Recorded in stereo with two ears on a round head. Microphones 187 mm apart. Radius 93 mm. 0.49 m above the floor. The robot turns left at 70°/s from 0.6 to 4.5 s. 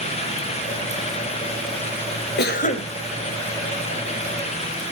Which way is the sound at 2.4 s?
60° left.